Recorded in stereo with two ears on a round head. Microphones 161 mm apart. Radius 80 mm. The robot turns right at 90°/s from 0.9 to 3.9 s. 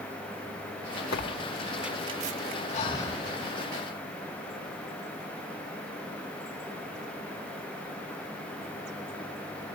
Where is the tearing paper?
60° left (ahead or behind), 0.8 m; by 2.6 s 75° right (ahead or behind), 0.8 m.